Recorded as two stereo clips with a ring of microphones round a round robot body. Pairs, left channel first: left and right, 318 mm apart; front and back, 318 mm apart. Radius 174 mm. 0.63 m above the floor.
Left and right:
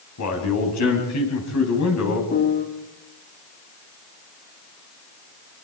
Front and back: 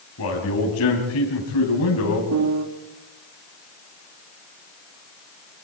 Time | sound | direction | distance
0.2 | a man speaking | 50° left | 4.5 m
2.3 | a piano | 145° left | 1.4 m